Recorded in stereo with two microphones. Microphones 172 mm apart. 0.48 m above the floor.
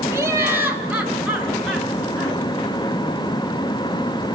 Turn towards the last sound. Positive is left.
turn(degrees=0)  # may be behind; listen again after turning